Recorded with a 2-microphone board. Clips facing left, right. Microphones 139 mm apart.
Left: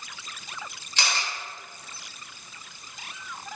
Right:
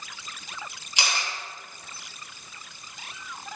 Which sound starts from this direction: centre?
A camera shutter, at 1.0 s.